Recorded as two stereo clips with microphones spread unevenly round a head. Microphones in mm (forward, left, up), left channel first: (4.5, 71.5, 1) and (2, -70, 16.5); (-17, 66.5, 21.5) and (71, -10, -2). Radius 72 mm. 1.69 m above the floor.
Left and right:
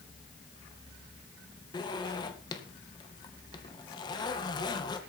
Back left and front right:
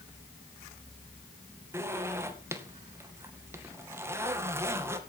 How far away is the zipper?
About 2 m.